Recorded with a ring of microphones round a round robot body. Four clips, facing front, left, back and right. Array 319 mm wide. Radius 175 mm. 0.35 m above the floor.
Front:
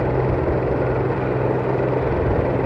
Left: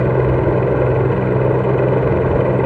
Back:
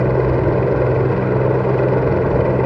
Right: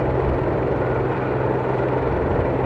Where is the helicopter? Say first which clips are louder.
Left 5 dB, back 4 dB; 125° left.